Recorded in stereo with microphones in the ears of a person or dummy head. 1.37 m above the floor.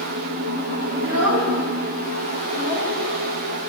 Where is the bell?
I don't hear a bell.